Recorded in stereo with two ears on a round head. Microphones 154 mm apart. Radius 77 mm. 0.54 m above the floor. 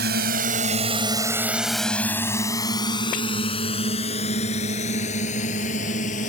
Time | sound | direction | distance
0.0 | a drone | 65° right (ahead or behind) | ?